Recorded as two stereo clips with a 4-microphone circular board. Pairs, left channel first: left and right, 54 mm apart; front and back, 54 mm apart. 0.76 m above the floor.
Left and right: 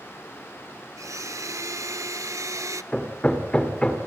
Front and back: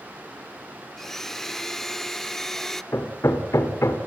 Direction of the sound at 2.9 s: 20° left.